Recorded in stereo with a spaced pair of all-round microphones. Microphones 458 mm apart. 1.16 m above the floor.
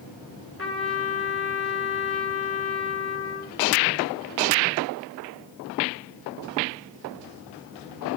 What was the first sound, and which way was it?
A trumpet, 30° left (ahead or behind).